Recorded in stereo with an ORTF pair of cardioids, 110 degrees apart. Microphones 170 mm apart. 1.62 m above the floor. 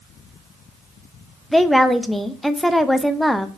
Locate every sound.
1.5 s a woman speaking: straight ahead, 0.6 m